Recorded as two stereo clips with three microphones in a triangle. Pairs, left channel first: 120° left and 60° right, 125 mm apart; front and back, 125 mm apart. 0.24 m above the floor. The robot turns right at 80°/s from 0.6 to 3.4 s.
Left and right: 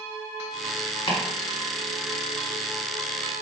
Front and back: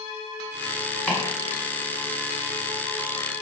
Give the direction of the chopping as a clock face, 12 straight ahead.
9 o'clock.